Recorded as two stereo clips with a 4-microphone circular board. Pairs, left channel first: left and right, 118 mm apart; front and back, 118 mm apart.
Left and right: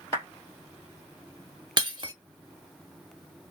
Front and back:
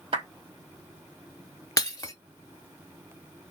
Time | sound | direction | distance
0.1 | a clap | 150° left | 2 m
1.8 | breaking glass | 55° right | 0.8 m